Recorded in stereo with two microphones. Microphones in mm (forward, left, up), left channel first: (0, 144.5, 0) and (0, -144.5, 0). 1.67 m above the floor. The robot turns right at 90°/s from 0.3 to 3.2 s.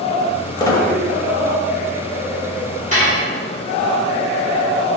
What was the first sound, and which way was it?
A squeak, 15° left (ahead or behind).